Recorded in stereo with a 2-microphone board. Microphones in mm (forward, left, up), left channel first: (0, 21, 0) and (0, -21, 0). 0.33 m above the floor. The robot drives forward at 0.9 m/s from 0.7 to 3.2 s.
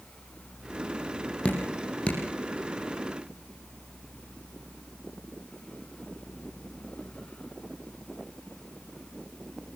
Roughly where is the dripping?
Left.